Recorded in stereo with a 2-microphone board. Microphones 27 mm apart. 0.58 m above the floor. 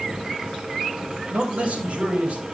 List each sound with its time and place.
1.3 s a man speaking: 65° right (ahead or behind), 3 m; by 2.5 s 50° right (ahead or behind), 3 m